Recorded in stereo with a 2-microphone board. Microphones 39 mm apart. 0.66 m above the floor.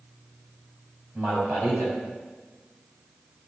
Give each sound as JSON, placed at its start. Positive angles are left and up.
{"t": 1.1, "sound": "a man speaking", "side_deg": -65, "distance_m": 4.5}